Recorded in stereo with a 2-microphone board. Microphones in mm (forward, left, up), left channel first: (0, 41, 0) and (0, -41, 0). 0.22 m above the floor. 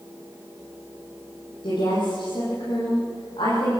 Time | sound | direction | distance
1.6 | a woman speaking | 80° left | 9.5 m